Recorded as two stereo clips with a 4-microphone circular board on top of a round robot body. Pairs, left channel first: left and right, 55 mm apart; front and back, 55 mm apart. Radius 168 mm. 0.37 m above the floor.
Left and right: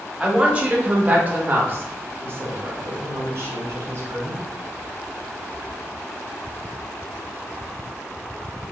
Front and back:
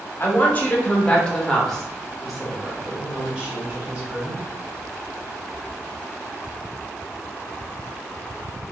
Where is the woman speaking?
30° right, 1.6 m; by 4.4 s 115° right, 2.5 m.